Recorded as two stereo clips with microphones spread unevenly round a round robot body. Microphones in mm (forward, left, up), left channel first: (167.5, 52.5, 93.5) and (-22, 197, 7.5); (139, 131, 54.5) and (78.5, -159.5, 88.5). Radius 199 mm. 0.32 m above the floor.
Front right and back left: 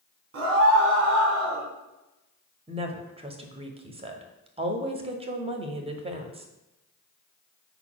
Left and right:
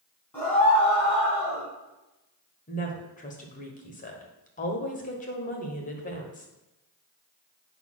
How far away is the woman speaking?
About 1.2 m.